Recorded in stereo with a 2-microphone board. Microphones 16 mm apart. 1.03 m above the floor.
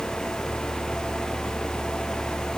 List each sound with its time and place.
Only background noise.